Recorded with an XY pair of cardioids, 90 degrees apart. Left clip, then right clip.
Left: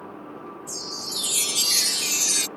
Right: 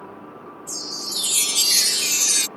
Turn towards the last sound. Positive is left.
turn(degrees=-25)